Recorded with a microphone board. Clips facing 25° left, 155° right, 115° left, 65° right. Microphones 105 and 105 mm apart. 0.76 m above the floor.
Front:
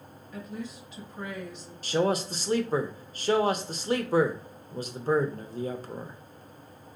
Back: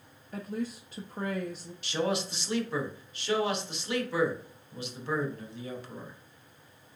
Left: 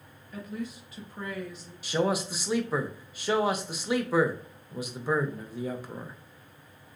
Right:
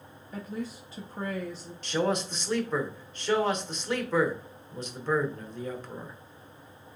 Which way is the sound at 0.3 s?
120° right.